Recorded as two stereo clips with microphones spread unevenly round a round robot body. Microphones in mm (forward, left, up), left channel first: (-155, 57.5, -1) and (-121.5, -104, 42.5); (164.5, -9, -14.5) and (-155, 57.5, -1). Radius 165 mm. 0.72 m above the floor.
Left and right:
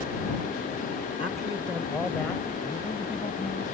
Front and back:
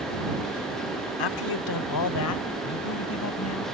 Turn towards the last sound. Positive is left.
turn(degrees=30)